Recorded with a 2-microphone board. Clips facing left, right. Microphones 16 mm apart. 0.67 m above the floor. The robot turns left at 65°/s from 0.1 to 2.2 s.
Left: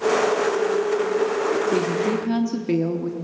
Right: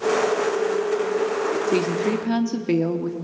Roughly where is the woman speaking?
Behind right.